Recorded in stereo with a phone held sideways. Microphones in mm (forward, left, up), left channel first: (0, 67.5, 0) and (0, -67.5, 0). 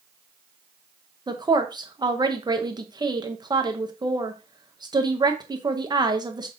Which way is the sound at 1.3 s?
30° right (ahead or behind).